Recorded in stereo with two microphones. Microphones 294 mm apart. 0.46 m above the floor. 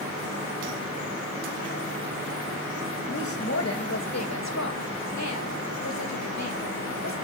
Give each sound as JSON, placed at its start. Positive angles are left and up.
{"t": 3.1, "sound": "a woman speaking", "side_deg": 45, "distance_m": 2.5}